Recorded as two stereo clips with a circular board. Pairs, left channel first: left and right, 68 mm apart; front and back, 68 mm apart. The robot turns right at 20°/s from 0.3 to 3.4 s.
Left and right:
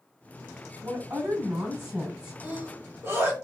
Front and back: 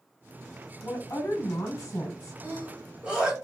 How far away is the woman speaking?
About 1.7 m.